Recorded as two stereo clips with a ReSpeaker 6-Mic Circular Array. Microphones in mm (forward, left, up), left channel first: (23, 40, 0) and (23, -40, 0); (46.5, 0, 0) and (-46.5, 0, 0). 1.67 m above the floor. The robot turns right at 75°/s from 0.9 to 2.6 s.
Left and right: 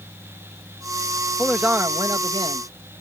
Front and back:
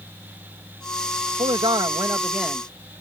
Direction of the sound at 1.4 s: Straight behind.